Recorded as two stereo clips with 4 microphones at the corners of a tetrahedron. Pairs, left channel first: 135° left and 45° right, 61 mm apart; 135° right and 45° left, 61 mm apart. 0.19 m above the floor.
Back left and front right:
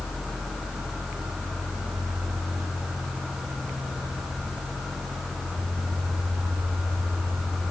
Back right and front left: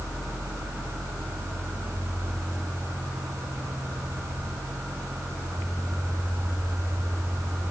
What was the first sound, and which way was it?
Only background noise.